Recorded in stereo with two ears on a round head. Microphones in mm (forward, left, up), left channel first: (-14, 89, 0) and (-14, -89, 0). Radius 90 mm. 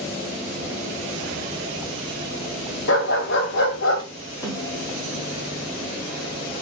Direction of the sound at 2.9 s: 70° left (ahead or behind).